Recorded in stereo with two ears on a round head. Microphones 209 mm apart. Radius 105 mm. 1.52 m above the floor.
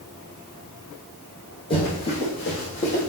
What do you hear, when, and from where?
1.7 s running footsteps: 25° left (ahead or behind), 3.5 m; by 3.1 s 30° left (ahead or behind), 4 m